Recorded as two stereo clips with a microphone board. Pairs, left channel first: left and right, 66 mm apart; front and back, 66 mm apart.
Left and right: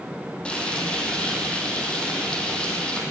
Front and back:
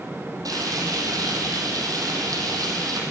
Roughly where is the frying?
Behind.